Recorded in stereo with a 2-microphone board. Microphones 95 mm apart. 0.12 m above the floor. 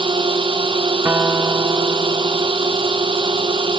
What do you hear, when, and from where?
0.0 s a drone: 70° right (ahead or behind)
1.1 s a guitar: 25° right (ahead or behind)